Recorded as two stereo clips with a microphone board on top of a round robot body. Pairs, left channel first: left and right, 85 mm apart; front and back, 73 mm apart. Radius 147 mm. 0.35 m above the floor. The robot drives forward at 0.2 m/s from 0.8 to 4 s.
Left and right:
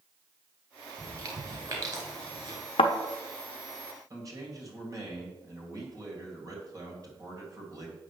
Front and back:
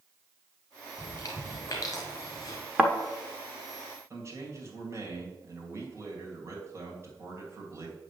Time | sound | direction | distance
1.0 | chewing | 40° right | 1.9 m
2.8 | a thud | 95° left | 0.8 m
4.1 | a man speaking | 135° right | 2.5 m